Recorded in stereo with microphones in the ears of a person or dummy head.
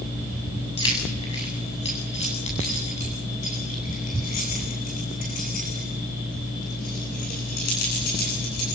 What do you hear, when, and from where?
0.8 s keys jangling: 25° left (ahead or behind), 7 m; by 8.8 s 50° left (ahead or behind), 10.5 m